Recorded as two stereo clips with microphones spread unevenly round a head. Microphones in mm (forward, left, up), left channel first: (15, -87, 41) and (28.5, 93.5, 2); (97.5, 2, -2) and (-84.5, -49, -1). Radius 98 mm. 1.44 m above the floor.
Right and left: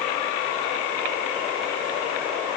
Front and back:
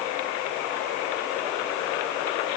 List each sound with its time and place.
Only background noise.